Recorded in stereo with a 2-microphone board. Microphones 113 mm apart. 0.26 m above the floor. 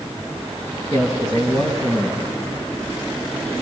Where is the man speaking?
35° left (ahead or behind), 2.5 m.